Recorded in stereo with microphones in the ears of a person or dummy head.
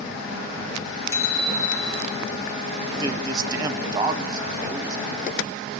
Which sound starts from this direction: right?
A man speaking, at 3.0 s.